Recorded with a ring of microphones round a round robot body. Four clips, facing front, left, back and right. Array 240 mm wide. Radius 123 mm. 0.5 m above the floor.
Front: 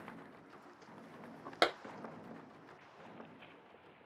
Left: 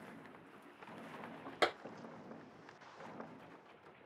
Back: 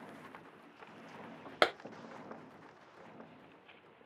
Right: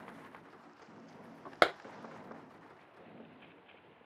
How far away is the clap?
About 0.6 m.